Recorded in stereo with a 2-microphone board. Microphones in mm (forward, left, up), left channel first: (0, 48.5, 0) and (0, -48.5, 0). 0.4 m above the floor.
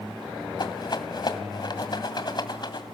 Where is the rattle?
45° left (ahead or behind), 1.8 m.